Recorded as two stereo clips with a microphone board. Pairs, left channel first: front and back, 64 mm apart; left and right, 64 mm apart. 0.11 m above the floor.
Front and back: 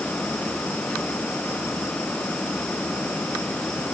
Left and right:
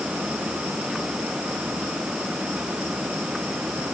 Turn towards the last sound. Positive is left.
No sound to turn to.